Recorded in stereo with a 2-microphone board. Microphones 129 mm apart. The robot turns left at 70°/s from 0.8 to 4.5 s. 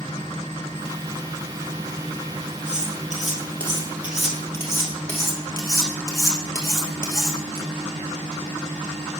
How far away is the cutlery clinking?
About 2.5 m.